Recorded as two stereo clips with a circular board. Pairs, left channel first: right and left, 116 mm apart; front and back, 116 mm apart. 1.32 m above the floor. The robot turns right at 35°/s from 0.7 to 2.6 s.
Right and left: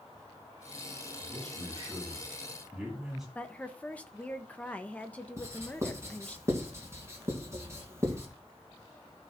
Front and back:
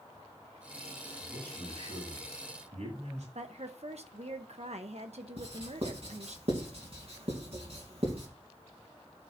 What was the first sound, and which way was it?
A man speaking, 130° left.